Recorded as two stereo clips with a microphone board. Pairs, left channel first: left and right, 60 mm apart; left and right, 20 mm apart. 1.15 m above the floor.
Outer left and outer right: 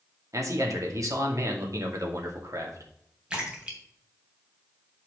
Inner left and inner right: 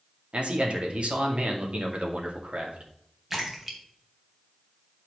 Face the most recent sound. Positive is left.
turn(degrees=-15)  # may be behind; listen again after turning